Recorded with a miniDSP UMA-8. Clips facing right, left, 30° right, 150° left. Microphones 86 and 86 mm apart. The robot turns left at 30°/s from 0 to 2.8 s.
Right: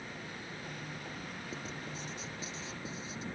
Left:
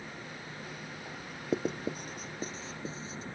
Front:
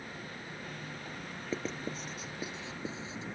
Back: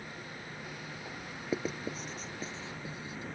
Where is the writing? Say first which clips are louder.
Left 15 dB, back 2 dB; 75° left; by 3.2 s 35° left.